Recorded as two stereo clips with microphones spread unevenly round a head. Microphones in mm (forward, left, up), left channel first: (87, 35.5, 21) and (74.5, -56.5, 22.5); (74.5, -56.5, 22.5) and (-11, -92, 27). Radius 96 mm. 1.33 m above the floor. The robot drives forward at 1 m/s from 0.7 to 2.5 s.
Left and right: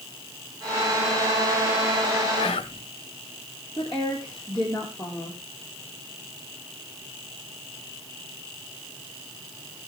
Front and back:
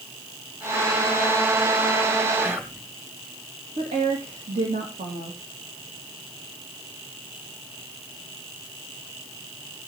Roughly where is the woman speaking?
Behind.